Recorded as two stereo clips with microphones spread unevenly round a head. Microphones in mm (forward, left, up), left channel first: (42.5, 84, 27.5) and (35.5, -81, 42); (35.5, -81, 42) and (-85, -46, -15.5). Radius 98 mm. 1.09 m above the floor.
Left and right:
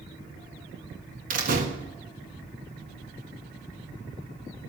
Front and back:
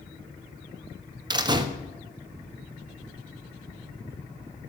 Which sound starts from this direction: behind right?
A door slam, at 1.3 s.